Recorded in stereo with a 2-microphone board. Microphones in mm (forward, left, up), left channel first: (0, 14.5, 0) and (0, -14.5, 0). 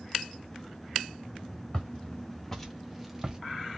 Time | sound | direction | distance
1.7 | footsteps | 30° left (ahead or behind) | 1.5 m